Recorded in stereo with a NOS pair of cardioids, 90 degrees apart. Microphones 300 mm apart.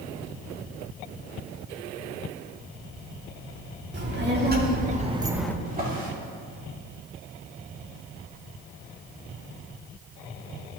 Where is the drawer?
30° right, 3 m.